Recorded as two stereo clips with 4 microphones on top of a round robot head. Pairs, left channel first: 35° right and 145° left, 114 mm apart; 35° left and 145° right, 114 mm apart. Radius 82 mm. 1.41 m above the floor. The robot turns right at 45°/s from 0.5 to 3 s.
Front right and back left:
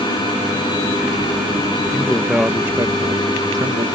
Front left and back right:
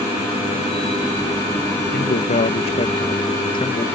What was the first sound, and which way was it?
A man speaking, 35° left.